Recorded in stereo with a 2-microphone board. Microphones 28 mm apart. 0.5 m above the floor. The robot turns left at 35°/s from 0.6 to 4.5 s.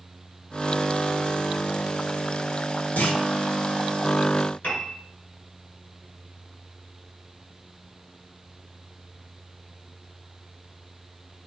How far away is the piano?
About 3 m.